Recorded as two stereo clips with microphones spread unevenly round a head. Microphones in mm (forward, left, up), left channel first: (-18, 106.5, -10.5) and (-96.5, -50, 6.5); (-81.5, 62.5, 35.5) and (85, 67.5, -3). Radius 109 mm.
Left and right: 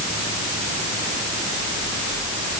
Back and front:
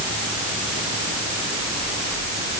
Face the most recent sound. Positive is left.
No sound to turn to.